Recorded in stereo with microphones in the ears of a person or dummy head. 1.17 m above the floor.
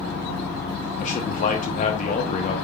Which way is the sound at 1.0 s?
35° left (ahead or behind).